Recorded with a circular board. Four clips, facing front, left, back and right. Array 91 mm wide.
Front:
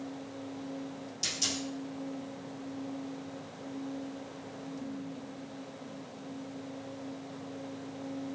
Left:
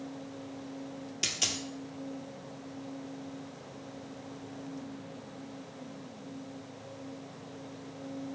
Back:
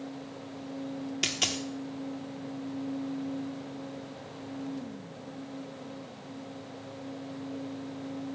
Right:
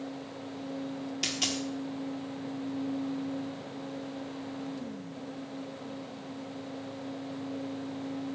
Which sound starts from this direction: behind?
A dropped coin, at 1.2 s.